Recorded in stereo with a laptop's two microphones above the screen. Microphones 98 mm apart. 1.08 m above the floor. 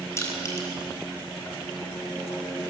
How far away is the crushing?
About 4.5 m.